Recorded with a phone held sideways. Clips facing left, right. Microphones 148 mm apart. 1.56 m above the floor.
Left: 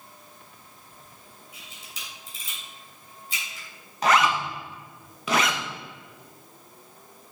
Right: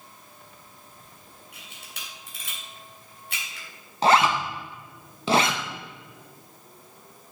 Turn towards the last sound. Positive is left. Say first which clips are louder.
# right 2 dB
turn(degrees=-30)  # may be behind; listen again after turning